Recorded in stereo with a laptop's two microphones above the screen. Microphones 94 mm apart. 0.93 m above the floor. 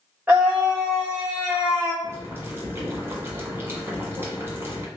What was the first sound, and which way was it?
A scream, 15° right (ahead or behind).